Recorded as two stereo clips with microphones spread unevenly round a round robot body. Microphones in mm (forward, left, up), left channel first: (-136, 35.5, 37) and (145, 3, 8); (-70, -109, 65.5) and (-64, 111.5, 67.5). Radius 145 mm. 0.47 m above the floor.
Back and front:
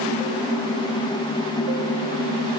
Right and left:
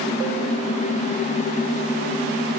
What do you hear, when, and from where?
Only background noise.